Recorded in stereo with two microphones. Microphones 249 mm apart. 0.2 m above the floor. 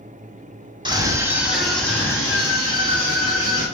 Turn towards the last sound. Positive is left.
turn(degrees=25)  # may be behind; listen again after turning